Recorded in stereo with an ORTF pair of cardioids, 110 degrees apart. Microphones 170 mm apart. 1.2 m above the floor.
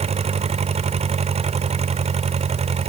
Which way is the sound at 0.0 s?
40° right.